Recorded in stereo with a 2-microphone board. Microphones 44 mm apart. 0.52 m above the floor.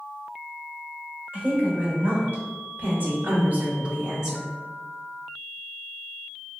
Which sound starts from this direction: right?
A woman speaking, at 1.3 s.